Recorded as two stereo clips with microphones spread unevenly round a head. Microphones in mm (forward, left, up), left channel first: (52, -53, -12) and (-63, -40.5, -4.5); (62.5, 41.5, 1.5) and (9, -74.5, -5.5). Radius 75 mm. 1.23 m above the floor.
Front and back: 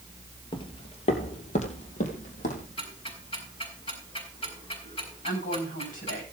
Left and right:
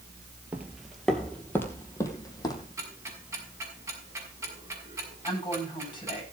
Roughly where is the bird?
I don't hear a bird.